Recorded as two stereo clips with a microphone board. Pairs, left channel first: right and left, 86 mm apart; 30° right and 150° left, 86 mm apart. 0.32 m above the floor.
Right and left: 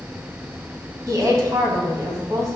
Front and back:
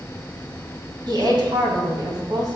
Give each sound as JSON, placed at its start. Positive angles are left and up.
{"t": 1.1, "sound": "a woman speaking", "azimuth_deg": 130, "distance_m": 1.9}